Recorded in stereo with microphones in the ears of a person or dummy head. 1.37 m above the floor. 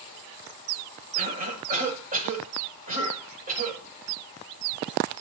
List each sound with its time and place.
1.1 s a cough: 40° right (ahead or behind), 7 m